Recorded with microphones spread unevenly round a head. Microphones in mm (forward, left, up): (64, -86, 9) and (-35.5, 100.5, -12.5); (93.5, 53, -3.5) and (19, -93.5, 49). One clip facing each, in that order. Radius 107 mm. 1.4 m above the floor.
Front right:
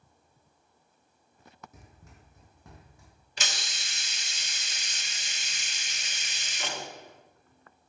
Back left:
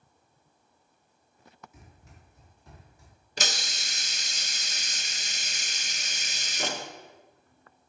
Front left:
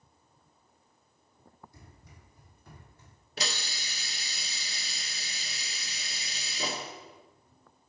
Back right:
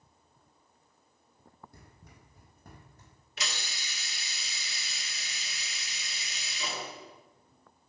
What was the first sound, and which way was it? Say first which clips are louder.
Running footsteps: even, even; 110° right.